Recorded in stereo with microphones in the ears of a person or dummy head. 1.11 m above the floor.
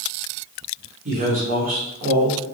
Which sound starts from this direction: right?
A man speaking, at 1.1 s.